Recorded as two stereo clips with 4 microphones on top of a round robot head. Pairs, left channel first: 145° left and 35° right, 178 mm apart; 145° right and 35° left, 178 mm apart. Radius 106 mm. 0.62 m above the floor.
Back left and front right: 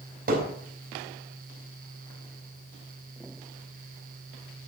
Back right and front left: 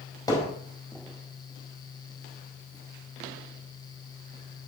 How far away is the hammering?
About 3.5 m.